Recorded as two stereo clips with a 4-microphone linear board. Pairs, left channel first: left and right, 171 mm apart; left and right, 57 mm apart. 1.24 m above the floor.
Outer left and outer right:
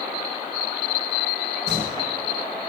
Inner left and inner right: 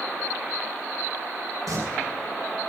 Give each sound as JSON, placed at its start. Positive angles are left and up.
{"t": 1.7, "sound": "singing", "side_deg": -85, "distance_m": 3.5}